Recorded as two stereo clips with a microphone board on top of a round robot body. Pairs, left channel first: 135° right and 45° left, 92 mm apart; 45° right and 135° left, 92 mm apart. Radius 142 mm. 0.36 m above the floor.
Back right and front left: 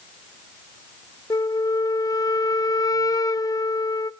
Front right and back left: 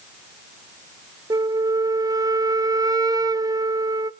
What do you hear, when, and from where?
1.3 s a flute: straight behind, 0.7 m